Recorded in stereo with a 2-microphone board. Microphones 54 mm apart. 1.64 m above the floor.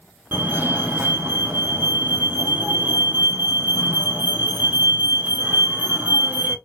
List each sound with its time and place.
0.3 s a fire alarm: 35° right (ahead or behind), 1.6 m